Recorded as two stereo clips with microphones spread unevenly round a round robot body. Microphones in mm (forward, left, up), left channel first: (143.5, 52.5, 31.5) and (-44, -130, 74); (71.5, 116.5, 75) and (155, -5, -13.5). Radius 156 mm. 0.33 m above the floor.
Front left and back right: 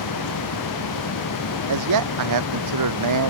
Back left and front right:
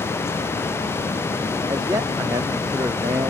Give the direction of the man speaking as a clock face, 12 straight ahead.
4 o'clock.